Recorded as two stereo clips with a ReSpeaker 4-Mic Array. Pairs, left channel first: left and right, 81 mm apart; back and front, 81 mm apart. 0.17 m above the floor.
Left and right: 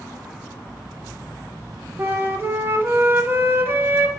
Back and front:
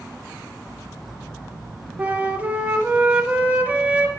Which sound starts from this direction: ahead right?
A flute, at 2.0 s.